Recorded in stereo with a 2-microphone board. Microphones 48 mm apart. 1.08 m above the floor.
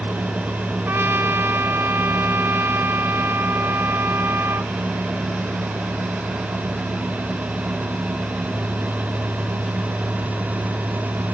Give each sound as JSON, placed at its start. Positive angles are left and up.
{"t": 0.9, "sound": "a trumpet", "side_deg": -55}